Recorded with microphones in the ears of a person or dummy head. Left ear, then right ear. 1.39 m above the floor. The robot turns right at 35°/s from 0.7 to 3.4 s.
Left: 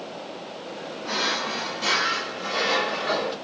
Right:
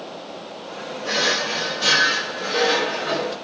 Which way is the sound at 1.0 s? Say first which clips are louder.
Right 5 dB; 70° right.